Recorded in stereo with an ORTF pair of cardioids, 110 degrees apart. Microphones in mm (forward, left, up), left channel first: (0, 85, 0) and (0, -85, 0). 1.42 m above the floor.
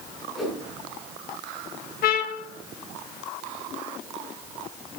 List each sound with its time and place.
0.3 s a whoosh: straight ahead, 6 m
2.0 s a trumpet: 60° left, 1.6 m